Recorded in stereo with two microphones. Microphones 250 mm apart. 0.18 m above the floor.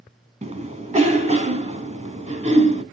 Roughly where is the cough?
Right.